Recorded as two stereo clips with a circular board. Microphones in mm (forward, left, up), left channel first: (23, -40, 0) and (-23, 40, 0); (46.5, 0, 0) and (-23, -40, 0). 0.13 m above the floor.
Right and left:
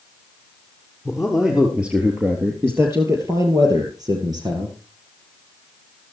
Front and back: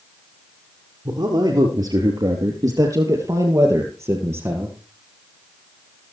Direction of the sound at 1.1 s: 150° right.